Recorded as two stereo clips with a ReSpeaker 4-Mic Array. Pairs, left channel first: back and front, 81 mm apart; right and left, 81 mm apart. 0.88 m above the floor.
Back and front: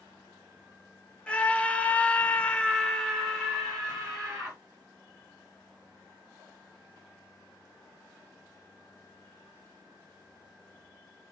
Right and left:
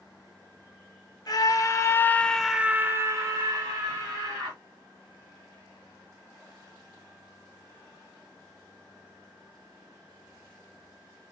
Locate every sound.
1.3 s a scream: 105° right, 0.9 m; by 4.6 s 85° left, 1.3 m